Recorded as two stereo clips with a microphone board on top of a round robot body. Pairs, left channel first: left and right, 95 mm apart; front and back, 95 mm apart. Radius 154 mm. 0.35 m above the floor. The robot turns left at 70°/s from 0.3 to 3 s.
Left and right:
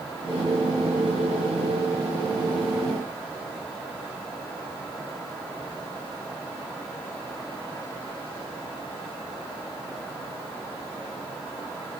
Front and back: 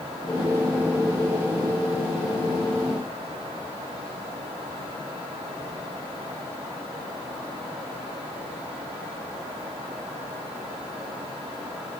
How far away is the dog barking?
I don't hear a dog barking.